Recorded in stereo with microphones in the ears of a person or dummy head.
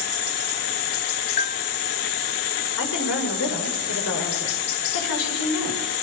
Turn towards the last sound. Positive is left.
turn(degrees=65)  # may be behind; listen again after turning